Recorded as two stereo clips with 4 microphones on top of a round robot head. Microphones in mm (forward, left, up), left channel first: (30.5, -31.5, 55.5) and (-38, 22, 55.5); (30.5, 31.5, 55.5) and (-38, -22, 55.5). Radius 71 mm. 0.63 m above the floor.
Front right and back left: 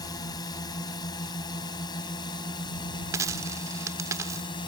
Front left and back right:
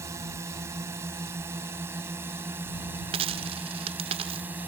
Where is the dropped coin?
160° right.